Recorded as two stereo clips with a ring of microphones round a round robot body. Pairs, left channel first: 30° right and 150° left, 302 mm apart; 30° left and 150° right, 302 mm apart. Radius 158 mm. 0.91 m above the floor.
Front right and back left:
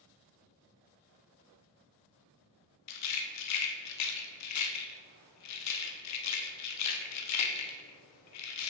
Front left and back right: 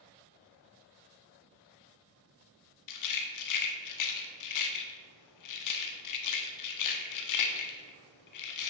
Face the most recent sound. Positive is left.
turn(degrees=5)